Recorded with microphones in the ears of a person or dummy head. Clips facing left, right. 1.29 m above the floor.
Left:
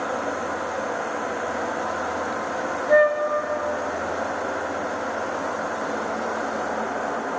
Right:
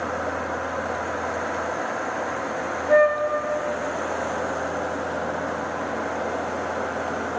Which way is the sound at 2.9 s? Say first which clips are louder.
Even; centre (ahead or behind).